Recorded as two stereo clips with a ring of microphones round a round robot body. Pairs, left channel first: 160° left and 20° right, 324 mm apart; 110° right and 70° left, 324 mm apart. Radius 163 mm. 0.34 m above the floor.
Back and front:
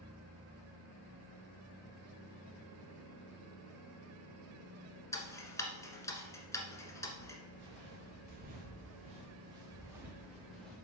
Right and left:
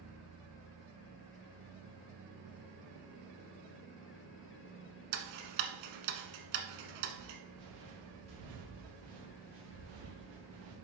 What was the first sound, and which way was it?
Ticking, 75° left.